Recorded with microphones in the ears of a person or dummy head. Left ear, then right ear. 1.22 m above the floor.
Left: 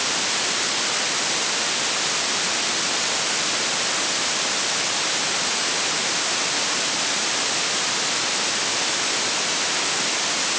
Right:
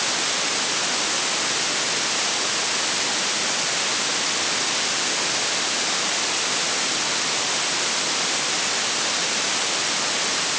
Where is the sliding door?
I don't hear a sliding door.